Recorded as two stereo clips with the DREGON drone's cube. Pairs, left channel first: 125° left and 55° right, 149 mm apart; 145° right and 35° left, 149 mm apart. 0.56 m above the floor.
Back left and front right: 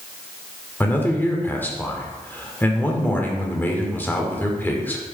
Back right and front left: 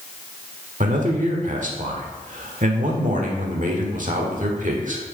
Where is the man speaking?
50° left, 1.5 m.